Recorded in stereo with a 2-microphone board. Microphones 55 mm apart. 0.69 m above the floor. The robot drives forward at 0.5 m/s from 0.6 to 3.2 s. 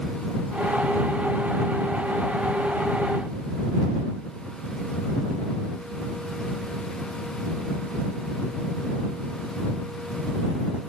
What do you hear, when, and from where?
Only background noise.